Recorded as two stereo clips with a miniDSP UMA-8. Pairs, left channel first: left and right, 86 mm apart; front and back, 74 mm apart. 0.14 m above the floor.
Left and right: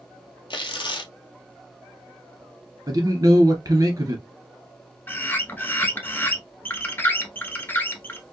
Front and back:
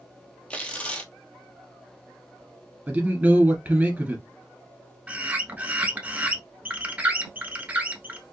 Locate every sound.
0.5 s tearing paper: 75° left, 0.7 m
2.9 s a man speaking: 115° right, 1.7 m
5.1 s a bird: 130° left, 0.6 m